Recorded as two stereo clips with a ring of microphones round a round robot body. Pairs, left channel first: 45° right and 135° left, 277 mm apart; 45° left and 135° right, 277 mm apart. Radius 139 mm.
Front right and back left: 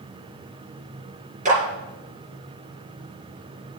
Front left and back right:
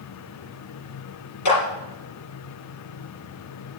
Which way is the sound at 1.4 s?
70° left.